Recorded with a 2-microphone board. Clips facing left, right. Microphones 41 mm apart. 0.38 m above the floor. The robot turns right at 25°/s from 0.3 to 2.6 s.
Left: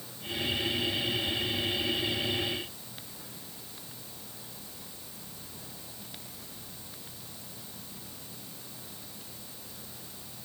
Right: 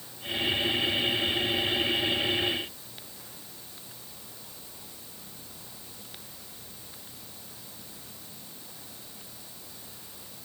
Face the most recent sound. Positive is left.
No sound to turn to.